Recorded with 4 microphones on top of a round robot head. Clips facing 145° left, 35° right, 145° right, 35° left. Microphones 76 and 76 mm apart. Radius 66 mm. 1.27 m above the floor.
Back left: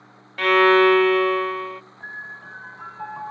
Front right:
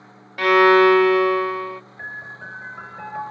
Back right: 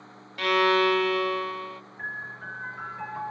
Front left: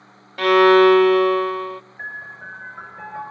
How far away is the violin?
About 0.6 m.